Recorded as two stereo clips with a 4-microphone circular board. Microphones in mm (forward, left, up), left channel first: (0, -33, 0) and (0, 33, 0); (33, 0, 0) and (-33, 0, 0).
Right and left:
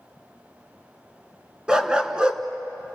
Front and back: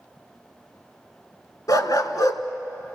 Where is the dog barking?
15° left, 1.2 m.